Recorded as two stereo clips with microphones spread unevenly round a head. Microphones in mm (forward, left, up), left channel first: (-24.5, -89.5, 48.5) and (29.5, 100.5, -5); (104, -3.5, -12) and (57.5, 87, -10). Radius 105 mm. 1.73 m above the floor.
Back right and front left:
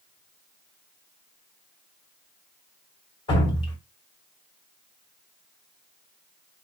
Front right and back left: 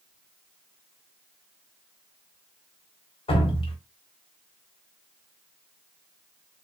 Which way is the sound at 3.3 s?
50° right.